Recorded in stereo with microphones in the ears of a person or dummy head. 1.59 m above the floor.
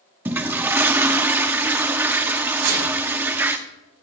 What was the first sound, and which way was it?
A toilet flushing, 10° right (ahead or behind).